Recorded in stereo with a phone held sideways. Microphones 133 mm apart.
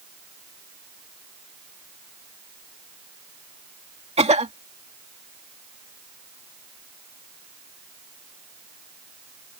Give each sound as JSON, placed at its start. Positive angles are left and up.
{"t": 4.2, "sound": "a cough", "side_deg": -55}